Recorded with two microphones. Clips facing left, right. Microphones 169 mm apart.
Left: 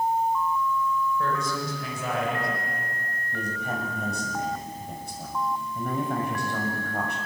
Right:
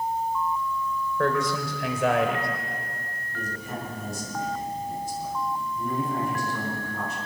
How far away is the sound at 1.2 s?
About 4 m.